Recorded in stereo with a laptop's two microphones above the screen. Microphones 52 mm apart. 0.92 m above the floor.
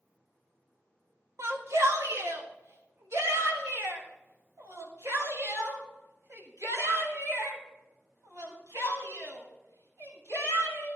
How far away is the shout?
About 1.7 m.